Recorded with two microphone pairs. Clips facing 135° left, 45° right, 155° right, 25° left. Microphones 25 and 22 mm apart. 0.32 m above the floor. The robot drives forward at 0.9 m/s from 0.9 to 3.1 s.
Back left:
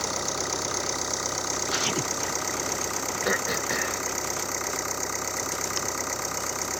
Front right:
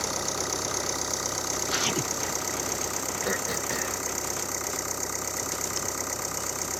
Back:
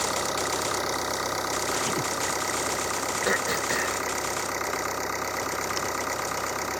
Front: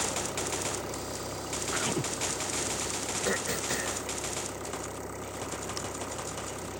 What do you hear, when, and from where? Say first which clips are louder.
0.0 s an engine running: back left 1 dB, back 6 dB; 140° right; by 6.8 s 145° right
3.2 s throat clearing: back left 4 dB, back 5 dB; 175° right